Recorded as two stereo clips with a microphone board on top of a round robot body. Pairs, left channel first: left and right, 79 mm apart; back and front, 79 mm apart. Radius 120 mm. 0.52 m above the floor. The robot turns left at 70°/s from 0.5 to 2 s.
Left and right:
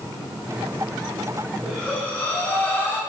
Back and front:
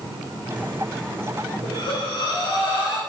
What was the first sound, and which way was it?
Breathing, 175° right.